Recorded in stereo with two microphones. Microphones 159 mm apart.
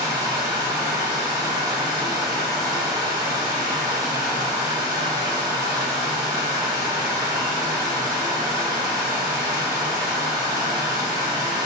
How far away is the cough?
No cough in this recording.